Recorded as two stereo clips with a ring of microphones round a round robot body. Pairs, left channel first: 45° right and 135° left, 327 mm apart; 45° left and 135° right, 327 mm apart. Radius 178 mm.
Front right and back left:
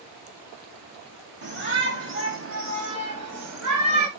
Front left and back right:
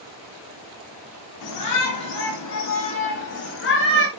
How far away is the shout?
About 5 m.